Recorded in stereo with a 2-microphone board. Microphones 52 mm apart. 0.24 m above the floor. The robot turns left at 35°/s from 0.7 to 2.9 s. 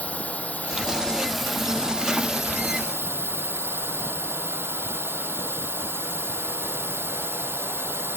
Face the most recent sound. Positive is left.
turn(degrees=-50)